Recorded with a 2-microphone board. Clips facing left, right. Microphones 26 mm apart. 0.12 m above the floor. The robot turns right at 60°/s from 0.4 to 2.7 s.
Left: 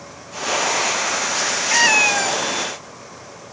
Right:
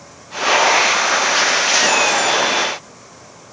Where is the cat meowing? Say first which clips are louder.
Even; 140° left, 0.9 m; by 2.4 s 175° right, 0.9 m.